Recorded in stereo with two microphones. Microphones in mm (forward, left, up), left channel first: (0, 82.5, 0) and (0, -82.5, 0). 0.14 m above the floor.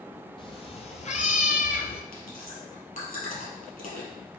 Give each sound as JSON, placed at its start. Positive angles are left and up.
{"t": 0.4, "sound": "a cat meowing", "side_deg": 35, "distance_m": 1.1}
{"t": 2.1, "sound": "chewing", "side_deg": 65, "distance_m": 2.0}